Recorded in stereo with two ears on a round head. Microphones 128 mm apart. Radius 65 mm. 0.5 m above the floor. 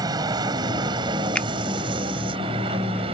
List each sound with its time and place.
0.0 s an aircraft: 30° right (ahead or behind); by 3.1 s 40° right (ahead or behind)
1.4 s a finger snap: 10° left (ahead or behind)